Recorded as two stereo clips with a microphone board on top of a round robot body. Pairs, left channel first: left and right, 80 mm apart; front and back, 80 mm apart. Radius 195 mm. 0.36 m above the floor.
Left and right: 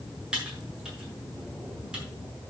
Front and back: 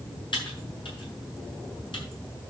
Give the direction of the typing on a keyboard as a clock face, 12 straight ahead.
12 o'clock.